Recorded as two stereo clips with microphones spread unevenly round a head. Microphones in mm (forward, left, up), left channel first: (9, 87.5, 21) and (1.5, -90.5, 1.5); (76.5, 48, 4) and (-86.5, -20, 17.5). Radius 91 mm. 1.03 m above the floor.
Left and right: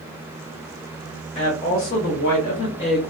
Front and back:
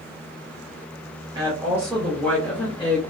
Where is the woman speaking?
140° left, 1.0 m; by 3.1 s 70° left, 1.2 m.